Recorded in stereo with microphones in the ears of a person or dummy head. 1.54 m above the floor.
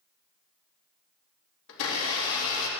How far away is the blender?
About 2.5 m.